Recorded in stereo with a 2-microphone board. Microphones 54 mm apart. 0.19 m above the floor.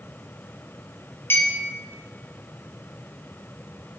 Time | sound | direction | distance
1.3 | a clink | 45° left (ahead or behind) | 2.5 m